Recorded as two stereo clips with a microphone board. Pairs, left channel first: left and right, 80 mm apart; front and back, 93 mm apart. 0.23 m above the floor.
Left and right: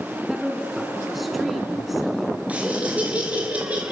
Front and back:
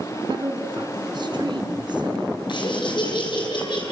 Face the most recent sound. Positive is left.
turn(degrees=-20)